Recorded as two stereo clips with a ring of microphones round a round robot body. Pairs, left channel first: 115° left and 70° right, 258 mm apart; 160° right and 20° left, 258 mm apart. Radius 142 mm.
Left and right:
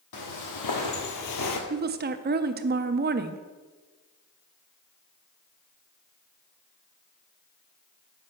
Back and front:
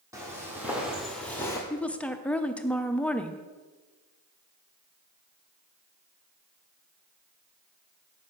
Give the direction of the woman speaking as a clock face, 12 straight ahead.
3 o'clock.